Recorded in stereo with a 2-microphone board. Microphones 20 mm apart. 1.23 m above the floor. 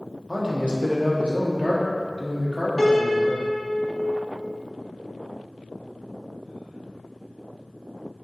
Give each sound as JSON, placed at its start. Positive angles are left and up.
{"t": 0.3, "sound": "a man speaking", "side_deg": -55, "distance_m": 0.9}
{"t": 2.8, "sound": "a piano", "side_deg": 35, "distance_m": 0.7}